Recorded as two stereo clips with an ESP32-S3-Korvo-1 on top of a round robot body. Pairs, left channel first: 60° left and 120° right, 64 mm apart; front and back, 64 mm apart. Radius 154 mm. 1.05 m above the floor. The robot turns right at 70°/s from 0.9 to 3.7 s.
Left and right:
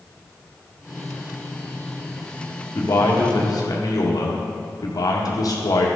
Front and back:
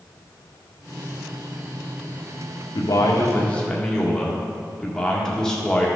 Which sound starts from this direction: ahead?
A man speaking, at 2.8 s.